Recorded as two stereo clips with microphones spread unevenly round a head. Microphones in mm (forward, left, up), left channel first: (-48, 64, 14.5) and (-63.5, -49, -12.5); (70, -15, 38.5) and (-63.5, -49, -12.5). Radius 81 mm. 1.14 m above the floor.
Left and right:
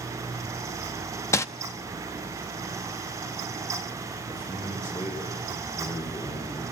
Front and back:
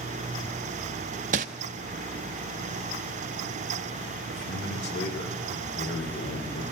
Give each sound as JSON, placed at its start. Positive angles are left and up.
{"t": 1.3, "sound": "crumpling", "azimuth_deg": 145, "distance_m": 1.0}
{"t": 4.3, "sound": "a man speaking", "azimuth_deg": 15, "distance_m": 4.5}